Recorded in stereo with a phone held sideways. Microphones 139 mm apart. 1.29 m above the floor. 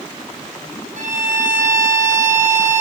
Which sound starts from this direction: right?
A violin, at 1.0 s.